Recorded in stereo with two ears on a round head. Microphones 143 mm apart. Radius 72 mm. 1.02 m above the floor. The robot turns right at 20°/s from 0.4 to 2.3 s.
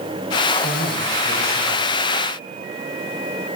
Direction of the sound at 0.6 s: 25° left (ahead or behind).